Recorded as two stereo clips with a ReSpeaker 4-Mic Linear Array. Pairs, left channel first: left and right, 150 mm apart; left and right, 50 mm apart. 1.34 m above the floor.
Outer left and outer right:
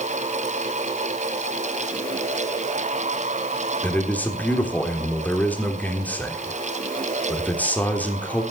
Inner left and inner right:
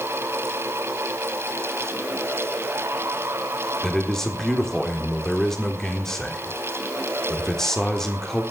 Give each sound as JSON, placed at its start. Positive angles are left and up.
{"t": 3.8, "sound": "a man speaking", "side_deg": 10, "distance_m": 3.5}